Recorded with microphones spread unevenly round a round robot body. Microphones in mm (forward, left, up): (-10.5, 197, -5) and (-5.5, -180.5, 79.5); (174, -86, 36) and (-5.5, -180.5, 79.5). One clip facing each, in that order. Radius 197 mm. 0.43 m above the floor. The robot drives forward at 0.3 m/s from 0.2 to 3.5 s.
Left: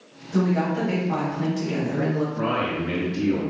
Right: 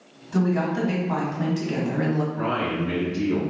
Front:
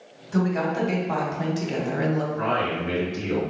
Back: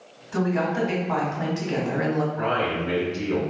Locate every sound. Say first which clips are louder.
0.3 s a woman speaking: left 1 dB, even; straight ahead, 1.5 m
2.3 s a man speaking: even, back 1 dB; 45° left, 1.8 m; by 3.4 s 60° left, 1.7 m